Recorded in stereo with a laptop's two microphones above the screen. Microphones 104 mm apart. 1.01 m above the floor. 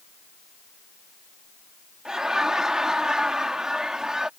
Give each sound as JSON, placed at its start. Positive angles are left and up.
{"t": 2.0, "sound": "laughter", "side_deg": -5}